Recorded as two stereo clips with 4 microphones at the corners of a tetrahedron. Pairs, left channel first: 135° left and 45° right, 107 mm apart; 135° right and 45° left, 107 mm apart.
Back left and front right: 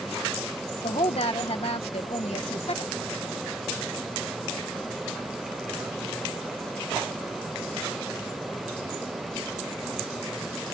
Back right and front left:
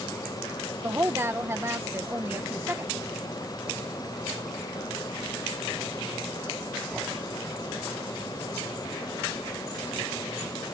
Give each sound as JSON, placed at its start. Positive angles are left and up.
{"t": 0.8, "sound": "a woman speaking", "azimuth_deg": 110}